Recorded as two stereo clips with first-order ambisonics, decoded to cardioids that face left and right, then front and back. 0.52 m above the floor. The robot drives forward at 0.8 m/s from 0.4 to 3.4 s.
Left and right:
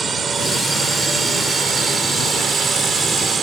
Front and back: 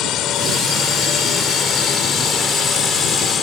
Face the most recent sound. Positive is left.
turn(degrees=-35)